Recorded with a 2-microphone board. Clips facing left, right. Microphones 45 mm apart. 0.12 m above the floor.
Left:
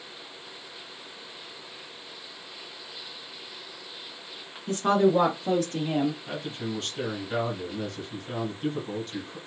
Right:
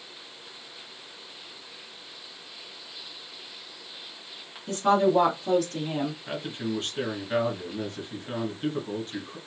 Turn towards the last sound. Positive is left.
turn(degrees=-25)  # may be behind; listen again after turning